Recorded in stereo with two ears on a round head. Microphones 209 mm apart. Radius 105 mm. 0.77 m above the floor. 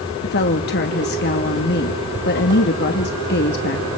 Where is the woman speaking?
45° left (ahead or behind), 1.2 m.